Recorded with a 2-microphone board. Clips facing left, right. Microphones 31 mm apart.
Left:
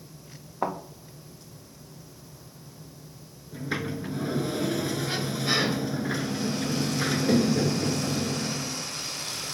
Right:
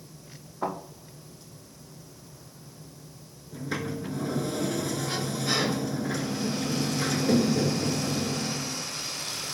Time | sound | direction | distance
0.6 | a thud | 85° left | 3 m
3.5 | a sliding door | 25° left (ahead or behind) | 0.6 m